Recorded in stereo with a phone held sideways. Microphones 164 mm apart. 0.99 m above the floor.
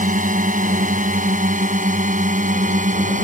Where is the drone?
50° right (ahead or behind).